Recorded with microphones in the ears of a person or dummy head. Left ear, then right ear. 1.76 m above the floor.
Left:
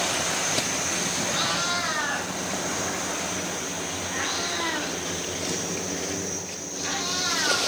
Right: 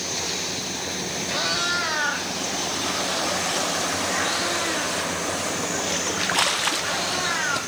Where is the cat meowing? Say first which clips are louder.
Right 4 dB; 15° right (ahead or behind), 4 m; by 7.6 s 5° left (ahead or behind), 9.5 m.